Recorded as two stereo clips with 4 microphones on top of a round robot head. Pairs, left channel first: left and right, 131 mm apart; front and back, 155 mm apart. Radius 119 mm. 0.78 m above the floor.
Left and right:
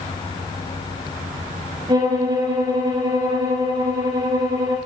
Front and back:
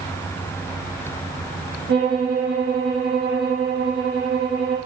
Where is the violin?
150° right, 3.5 m.